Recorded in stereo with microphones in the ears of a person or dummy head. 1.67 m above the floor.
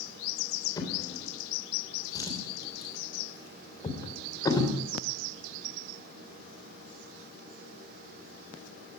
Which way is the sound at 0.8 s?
15° left (ahead or behind).